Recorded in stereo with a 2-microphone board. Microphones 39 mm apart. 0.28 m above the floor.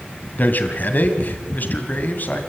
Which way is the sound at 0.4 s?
55° left (ahead or behind).